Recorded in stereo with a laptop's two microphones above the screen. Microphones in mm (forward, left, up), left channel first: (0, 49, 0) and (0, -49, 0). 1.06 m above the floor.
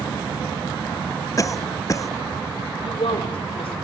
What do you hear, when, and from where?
1.4 s a cough: 35° left (ahead or behind), 0.7 m
2.8 s a woman speaking: 80° left, 5.5 m